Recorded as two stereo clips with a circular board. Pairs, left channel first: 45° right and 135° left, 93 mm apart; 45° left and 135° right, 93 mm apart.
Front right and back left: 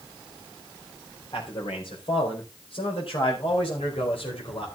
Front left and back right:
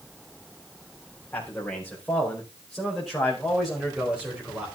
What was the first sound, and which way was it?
A man speaking, 35° right.